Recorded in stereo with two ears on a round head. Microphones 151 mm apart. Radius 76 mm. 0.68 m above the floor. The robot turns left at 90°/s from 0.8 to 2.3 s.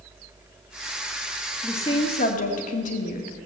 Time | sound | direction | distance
1.6 | a woman speaking | 170° left | 1.8 m